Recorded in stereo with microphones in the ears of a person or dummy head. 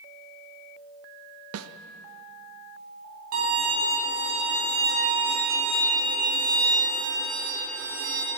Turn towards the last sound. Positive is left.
turn(degrees=-50)  # may be behind; listen again after turning